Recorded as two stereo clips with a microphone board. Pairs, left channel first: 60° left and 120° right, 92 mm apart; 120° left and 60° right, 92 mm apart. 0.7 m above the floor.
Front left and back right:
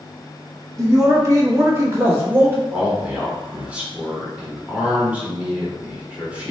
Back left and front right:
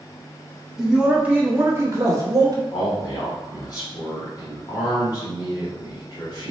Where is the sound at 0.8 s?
145° right, 1.1 m; by 2.6 s 65° right, 1.1 m.